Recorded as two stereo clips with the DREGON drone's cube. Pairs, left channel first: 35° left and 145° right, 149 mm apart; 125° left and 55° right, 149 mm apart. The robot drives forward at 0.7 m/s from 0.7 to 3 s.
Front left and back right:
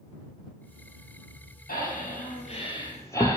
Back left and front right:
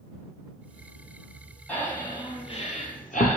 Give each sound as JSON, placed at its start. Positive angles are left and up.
{"t": 1.7, "sound": "breathing", "azimuth_deg": 45, "distance_m": 1.1}